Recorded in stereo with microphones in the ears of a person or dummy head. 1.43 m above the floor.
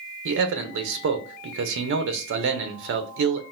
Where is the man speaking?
65° right (ahead or behind), 0.7 m.